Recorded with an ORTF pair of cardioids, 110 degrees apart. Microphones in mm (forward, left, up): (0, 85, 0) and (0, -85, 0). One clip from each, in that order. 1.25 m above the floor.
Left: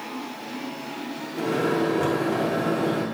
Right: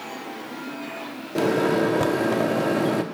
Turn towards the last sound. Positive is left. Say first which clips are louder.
# right 3 dB
turn(degrees=-60)